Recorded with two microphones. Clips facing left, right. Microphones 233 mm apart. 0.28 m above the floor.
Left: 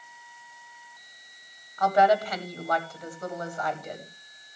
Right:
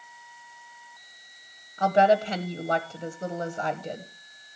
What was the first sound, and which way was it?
A woman speaking, 25° right (ahead or behind).